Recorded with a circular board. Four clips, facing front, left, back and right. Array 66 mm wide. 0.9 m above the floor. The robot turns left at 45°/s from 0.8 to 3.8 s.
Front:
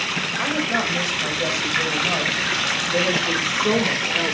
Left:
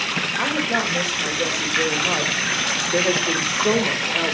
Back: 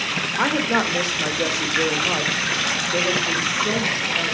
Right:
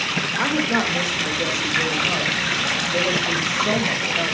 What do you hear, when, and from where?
0.4 s a woman speaking: 170° right, 3 m; by 4.3 s 55° left, 3 m